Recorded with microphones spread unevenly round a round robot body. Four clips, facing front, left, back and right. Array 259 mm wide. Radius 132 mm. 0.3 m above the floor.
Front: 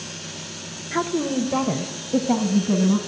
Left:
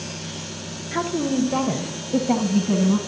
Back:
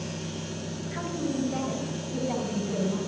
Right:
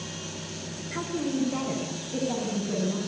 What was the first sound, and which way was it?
A woman speaking, 35° left.